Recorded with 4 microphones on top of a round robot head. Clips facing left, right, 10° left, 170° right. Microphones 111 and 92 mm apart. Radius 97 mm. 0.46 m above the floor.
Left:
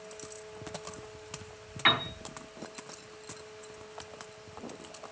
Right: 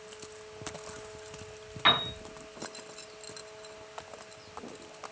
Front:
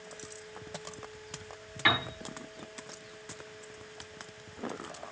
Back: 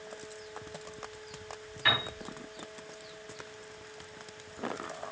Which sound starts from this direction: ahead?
A piano, at 1.9 s.